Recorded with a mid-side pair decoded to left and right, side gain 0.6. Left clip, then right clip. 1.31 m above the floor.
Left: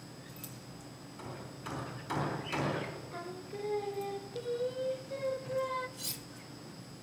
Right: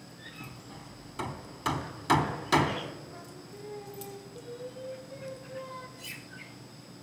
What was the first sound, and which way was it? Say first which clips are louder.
Hammering: right 3 dB; 65° right.